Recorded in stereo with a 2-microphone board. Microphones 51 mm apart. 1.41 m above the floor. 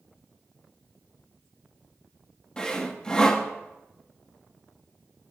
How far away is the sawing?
About 1.1 m.